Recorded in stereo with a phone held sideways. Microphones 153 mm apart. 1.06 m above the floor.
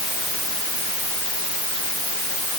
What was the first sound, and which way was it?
Only background noise.